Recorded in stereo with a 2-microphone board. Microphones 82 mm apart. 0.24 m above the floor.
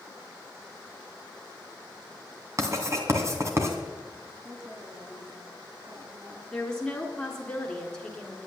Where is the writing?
35° right (ahead or behind), 2.5 m.